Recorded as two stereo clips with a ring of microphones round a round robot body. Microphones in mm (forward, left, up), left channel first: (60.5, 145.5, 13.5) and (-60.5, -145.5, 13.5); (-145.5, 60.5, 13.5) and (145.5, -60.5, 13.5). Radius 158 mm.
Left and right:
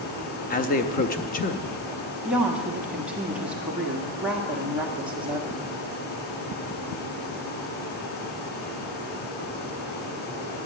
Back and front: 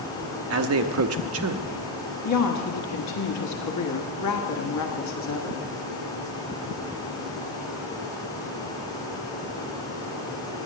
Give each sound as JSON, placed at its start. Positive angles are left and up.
{"t": 0.5, "sound": "a man speaking", "azimuth_deg": 10, "distance_m": 0.7}
{"t": 2.2, "sound": "a woman speaking", "azimuth_deg": 160, "distance_m": 1.3}